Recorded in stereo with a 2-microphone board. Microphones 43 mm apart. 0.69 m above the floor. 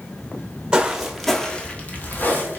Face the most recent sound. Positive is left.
turn(degrees=50)  # may be behind; listen again after turning